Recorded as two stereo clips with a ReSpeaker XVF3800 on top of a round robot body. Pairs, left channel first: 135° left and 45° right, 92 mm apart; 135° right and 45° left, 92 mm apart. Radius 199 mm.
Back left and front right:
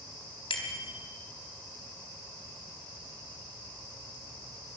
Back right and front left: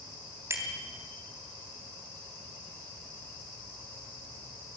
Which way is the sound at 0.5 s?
105° left.